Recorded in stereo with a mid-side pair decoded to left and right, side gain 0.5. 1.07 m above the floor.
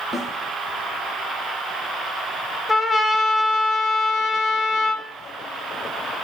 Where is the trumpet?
15° left, 1.6 m.